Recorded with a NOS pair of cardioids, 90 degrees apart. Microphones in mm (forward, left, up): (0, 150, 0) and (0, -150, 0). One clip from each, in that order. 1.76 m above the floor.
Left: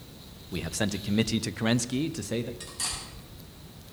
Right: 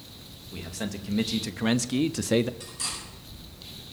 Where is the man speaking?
40° left, 1.2 m; by 2.5 s 40° right, 0.7 m.